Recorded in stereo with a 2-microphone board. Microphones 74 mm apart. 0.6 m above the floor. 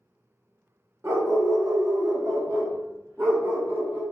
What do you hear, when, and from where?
1.0 s a dog barking: 35° right (ahead or behind), 0.6 m; by 4.0 s 30° right (ahead or behind), 1.3 m